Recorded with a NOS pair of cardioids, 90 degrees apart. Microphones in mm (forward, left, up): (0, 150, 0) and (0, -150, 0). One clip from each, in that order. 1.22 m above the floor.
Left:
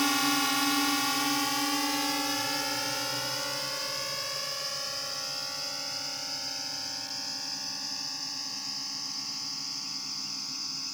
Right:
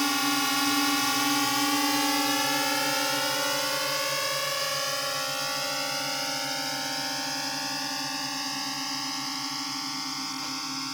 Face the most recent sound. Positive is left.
turn(degrees=-80)